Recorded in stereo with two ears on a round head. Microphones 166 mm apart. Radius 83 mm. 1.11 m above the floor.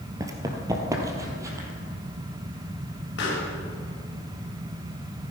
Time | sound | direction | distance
0.2 | running footsteps | 20° right (ahead or behind) | 1.5 m
3.2 | a pop | 70° left (ahead or behind) | 4.5 m